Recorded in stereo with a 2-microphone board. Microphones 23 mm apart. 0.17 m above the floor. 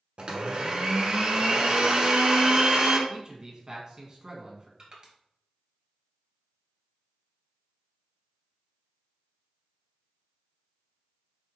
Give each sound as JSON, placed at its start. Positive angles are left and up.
{"t": 0.2, "sound": "a blender", "side_deg": -50, "distance_m": 1.1}
{"t": 3.1, "sound": "a man speaking", "side_deg": -35, "distance_m": 1.4}
{"t": 4.8, "sound": "crushing", "side_deg": -35, "distance_m": 1.9}